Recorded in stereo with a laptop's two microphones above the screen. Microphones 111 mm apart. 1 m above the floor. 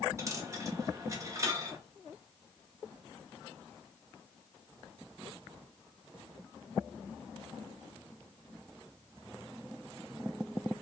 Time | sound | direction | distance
0.2 | a dropped coin | 30° right (ahead or behind) | 0.5 m